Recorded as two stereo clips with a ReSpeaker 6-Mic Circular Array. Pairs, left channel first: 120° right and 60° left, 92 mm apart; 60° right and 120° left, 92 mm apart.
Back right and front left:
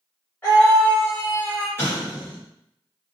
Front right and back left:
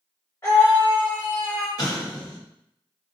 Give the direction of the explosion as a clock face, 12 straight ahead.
2 o'clock.